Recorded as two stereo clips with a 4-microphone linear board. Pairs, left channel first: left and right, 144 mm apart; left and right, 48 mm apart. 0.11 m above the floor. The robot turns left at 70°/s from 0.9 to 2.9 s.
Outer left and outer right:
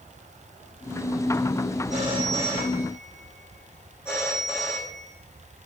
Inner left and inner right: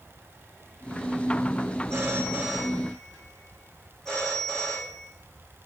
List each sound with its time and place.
1.9 s a phone ringing: 125° right, 4.5 m; by 5.1 s 165° left, 4.5 m